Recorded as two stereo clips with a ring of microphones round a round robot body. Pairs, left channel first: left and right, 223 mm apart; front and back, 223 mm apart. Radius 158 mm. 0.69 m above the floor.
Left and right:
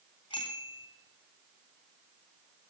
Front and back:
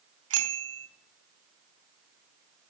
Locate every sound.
0.3 s a bicycle bell: 165° left, 3 m